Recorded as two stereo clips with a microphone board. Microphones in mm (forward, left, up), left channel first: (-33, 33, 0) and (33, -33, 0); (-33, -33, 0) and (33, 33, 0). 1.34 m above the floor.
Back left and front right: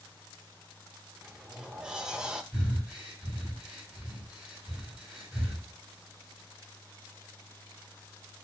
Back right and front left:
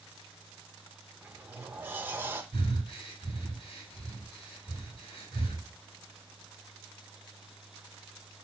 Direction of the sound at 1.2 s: 25° left.